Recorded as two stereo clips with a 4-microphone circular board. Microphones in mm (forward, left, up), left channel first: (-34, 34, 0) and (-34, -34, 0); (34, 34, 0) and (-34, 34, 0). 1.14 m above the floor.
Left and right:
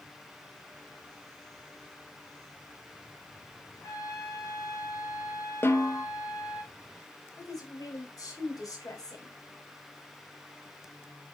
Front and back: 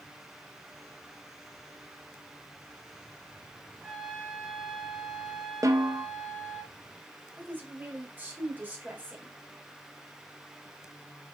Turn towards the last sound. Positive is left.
turn(degrees=115)